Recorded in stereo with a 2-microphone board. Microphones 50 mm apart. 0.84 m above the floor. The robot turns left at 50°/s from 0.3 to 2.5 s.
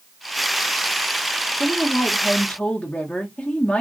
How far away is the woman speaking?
About 1.3 m.